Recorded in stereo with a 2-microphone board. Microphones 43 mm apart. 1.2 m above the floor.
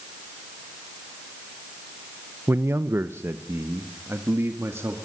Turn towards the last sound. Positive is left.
turn(degrees=-80)